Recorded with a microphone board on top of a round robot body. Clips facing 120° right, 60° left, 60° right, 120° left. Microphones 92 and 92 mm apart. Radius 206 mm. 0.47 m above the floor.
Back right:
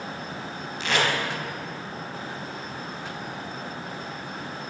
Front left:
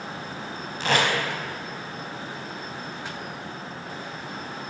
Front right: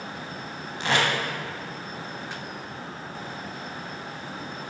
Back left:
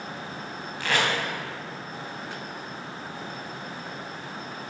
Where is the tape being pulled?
10° left, 2.5 m.